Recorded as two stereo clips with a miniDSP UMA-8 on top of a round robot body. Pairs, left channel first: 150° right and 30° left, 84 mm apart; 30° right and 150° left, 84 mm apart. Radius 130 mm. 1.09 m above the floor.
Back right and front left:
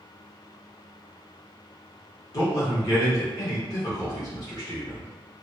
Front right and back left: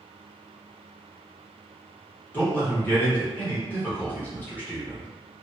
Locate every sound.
2.3 s a man speaking: 100° right, 1.4 m